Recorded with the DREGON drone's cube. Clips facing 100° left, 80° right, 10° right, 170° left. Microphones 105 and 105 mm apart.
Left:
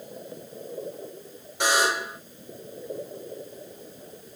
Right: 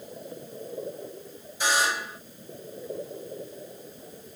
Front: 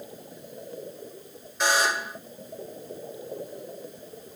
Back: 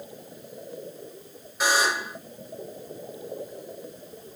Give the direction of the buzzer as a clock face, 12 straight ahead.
9 o'clock.